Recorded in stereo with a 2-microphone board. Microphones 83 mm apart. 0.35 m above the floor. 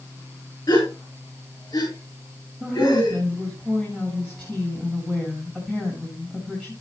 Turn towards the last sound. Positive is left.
turn(degrees=15)  # may be behind; listen again after turning